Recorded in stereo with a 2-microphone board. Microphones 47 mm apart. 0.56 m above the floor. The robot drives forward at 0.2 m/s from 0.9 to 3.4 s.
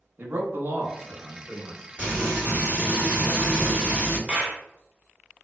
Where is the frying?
30° right (ahead or behind), 1.6 m; by 4.2 s 25° right (ahead or behind), 1.7 m.